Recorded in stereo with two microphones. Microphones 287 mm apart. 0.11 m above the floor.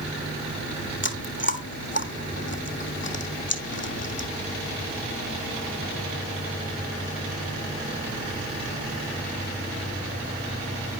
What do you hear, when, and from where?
1.0 s chewing: 40° left (ahead or behind), 0.9 m